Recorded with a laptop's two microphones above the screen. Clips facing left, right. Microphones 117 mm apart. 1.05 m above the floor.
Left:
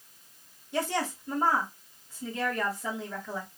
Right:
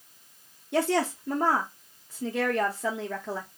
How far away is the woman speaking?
About 0.7 m.